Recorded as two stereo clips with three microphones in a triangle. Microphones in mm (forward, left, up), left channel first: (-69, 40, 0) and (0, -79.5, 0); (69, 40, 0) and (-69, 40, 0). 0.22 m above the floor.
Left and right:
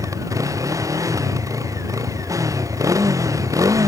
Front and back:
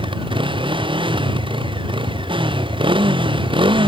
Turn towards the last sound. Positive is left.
turn(degrees=-125)